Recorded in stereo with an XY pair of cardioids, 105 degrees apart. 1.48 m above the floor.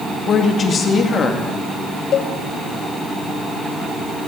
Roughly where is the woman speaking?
Ahead left.